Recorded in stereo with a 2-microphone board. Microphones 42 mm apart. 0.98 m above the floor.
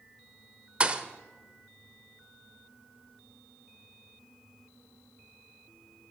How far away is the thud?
About 0.9 m.